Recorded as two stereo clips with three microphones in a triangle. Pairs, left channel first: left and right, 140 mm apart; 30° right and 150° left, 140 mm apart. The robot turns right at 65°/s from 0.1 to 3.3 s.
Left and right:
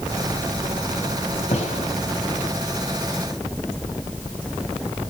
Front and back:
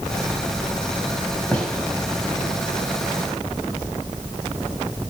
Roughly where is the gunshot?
Ahead left.